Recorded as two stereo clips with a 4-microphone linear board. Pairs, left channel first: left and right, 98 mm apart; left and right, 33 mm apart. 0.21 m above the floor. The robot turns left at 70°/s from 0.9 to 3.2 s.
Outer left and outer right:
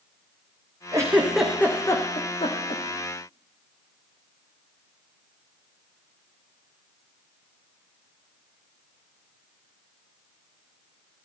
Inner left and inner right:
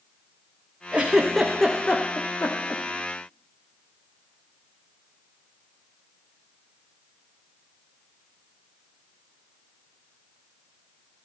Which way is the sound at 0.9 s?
35° right (ahead or behind).